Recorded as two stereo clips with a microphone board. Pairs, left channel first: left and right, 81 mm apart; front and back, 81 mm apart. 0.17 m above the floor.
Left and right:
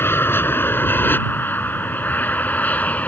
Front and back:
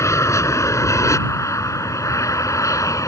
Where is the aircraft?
40° left; by 3.1 s 25° left.